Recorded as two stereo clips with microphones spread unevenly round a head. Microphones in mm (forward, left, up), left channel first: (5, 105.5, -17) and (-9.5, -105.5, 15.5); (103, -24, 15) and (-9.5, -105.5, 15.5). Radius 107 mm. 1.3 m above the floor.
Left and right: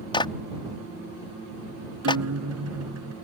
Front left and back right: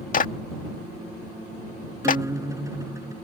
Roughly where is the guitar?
Right.